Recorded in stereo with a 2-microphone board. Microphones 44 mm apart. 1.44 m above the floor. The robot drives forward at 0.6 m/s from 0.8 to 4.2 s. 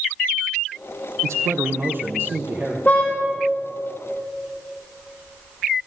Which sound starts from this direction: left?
A car horn, at 2.9 s.